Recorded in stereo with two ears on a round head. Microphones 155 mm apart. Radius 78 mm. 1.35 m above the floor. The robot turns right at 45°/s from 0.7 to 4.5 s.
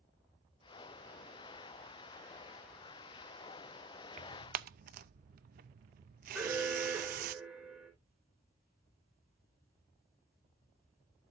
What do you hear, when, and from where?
4.2 s tearing paper: 40° right (ahead or behind), 0.6 m; by 7.3 s 55° right (ahead or behind), 0.6 m
6.3 s an alarm: 5° right (ahead or behind), 3.5 m